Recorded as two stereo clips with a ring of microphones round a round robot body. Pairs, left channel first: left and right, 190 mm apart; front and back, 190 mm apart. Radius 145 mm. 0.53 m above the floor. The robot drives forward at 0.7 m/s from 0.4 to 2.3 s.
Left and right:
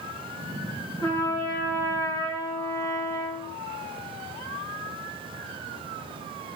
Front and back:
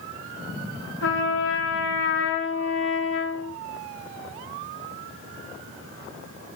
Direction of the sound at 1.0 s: 10° left.